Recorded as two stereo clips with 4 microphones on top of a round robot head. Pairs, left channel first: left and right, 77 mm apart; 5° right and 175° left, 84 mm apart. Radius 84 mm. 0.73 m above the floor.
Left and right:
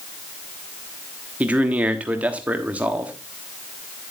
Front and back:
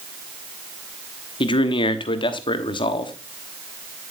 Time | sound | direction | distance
1.4 | a man speaking | 20° right | 1.3 m